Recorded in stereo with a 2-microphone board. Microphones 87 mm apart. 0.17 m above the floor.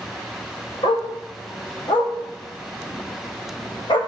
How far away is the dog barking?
About 4.5 m.